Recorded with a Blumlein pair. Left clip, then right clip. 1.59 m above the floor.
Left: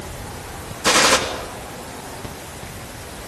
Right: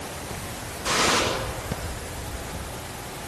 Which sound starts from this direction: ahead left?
A gunshot, at 0.8 s.